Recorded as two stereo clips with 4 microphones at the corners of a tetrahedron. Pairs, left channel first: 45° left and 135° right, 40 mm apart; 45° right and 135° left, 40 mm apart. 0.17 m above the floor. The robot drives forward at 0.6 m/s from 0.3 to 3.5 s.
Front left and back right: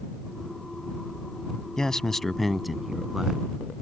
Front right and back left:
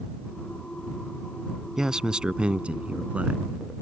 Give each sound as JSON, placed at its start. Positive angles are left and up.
{"t": 1.8, "sound": "a man speaking", "azimuth_deg": 85}